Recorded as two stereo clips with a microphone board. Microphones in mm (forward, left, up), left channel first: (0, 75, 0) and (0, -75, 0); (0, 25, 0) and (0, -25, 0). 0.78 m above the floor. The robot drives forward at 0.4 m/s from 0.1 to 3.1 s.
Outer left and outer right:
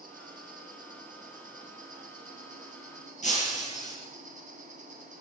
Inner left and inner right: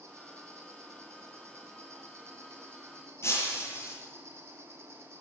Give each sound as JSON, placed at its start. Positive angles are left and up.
{"t": 0.0, "sound": "an insect", "side_deg": -60, "distance_m": 6.5}
{"t": 3.2, "sound": "breaking glass", "side_deg": 50, "distance_m": 8.5}